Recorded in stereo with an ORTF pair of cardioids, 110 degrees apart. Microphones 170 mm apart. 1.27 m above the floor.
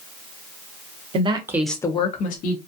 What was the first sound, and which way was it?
A woman speaking, 35° right.